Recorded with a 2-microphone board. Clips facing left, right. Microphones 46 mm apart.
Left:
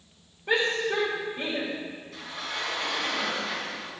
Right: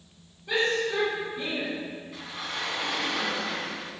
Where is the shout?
40° left (ahead or behind), 3 m.